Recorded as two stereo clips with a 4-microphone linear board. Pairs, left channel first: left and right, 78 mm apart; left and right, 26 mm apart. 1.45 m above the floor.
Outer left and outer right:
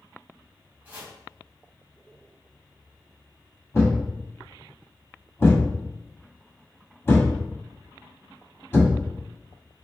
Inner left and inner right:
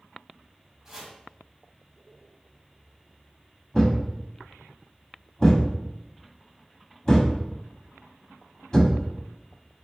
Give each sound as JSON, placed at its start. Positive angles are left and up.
{"t": 0.8, "sound": "chopping", "side_deg": -20, "distance_m": 2.0}
{"t": 3.7, "sound": "a thud", "side_deg": 30, "distance_m": 1.4}